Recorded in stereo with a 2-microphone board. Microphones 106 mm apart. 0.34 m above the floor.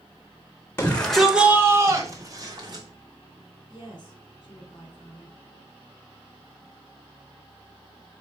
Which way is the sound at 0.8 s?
20° left (ahead or behind).